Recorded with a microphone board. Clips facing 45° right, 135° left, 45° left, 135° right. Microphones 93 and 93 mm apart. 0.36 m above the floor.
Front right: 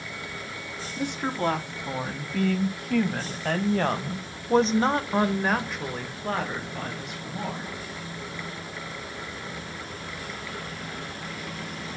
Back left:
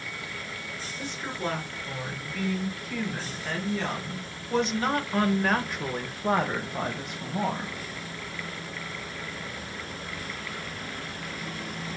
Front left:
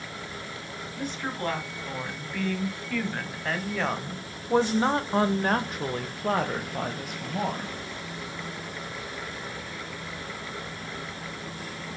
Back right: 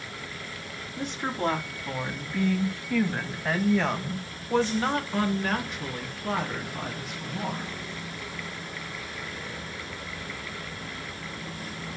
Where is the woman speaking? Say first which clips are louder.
Front right 7 dB, back right 3 dB; 65° right, 3 m; by 7.8 s 85° left, 1.9 m.